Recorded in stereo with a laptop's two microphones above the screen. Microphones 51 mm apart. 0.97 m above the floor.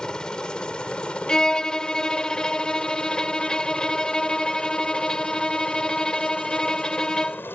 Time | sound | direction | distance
0.0 | a helicopter | 15° left (ahead or behind) | ?
1.3 | a violin | 15° left (ahead or behind) | ?